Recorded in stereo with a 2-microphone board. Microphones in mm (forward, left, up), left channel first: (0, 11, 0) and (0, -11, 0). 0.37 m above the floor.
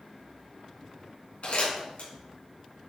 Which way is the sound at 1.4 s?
75° left (ahead or behind).